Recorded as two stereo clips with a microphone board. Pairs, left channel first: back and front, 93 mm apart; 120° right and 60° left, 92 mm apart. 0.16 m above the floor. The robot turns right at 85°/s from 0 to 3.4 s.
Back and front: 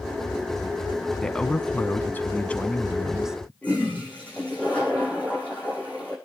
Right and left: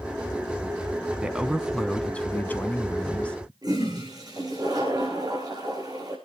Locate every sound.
1.2 s a man speaking: 110° left, 1.2 m; by 3.5 s 60° right, 1.2 m
3.6 s a toilet flushing: 105° left, 5.5 m